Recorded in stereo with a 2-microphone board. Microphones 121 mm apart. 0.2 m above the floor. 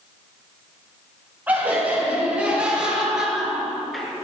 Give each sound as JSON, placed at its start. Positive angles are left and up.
{"t": 1.5, "sound": "laughter", "side_deg": -15, "distance_m": 5.5}